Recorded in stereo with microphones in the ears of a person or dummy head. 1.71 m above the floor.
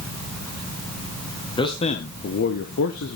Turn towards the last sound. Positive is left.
turn(degrees=85)